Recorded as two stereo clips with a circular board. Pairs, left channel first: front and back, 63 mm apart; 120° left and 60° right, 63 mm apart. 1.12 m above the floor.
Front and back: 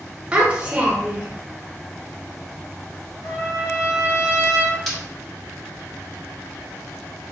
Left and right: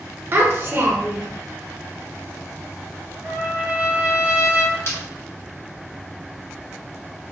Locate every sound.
0.3 s a child speaking: 110° right, 0.8 m
3.2 s a trumpet: 20° right, 1.6 m
4.9 s breaking glass: 90° left, 1.8 m